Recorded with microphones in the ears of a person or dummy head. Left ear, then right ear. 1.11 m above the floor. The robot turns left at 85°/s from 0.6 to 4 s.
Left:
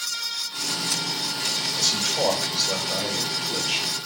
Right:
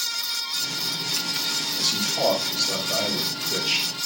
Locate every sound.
1.8 s a man speaking: 95° left, 3.5 m; by 3.9 s 85° right, 3.5 m